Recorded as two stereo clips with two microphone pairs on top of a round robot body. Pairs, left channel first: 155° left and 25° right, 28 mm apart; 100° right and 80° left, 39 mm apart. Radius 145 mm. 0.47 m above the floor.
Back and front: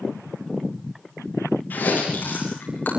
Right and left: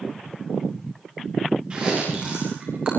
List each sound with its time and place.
1.7 s chewing: 145° left, 9.5 m